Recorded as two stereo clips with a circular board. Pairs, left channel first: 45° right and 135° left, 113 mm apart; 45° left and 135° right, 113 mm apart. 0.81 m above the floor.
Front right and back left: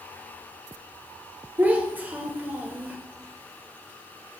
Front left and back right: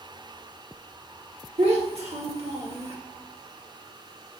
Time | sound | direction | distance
1.6 | a child speaking | 150° right | 1.3 m